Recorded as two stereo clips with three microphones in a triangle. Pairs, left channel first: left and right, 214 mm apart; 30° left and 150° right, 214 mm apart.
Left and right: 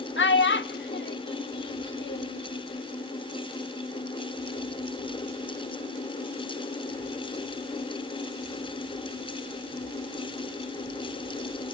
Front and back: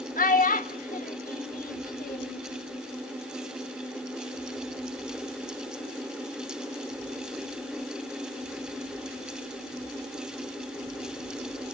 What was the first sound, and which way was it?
A child speaking, 75° left.